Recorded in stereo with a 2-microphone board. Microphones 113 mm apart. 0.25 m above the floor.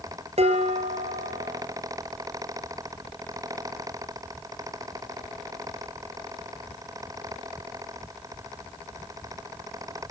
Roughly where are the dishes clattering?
Right.